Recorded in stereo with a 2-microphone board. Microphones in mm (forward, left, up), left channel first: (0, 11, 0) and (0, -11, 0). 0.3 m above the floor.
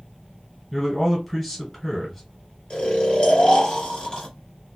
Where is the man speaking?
5° left (ahead or behind), 1.5 m.